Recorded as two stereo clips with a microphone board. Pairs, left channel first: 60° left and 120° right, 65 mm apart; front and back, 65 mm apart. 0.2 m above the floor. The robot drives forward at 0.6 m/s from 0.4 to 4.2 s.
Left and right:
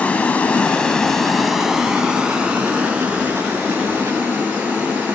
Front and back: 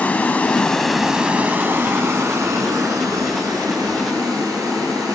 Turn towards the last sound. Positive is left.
turn(degrees=175)